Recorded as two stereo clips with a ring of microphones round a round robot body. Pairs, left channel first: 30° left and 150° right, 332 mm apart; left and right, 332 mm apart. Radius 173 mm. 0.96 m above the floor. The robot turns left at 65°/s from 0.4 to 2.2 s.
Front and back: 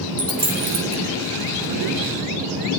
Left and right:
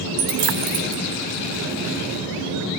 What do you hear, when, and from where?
0.2 s a dropped coin: 75° right, 2.5 m; by 1.0 s 115° right, 2.5 m